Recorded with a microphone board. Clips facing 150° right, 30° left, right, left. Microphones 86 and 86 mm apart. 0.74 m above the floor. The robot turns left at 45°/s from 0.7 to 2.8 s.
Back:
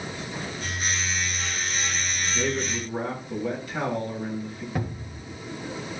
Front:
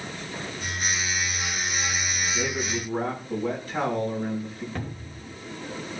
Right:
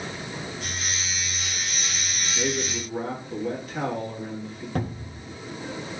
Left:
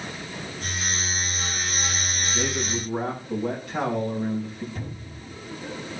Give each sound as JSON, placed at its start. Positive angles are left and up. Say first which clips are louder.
{"t": 2.3, "sound": "a man speaking", "louder": "back 2 dB, right 1 dB", "azimuth_deg": 105, "distance_m": 6.5}
{"t": 4.8, "sound": "a cupboard door", "louder": "back 3 dB, right 6 dB", "azimuth_deg": -75, "distance_m": 1.9}